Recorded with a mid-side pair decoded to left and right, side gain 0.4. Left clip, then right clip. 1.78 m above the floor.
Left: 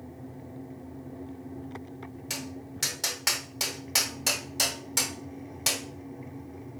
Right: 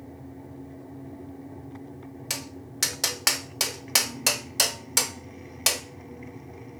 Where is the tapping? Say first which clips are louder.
Right 3 dB; 55° right, 1.1 m.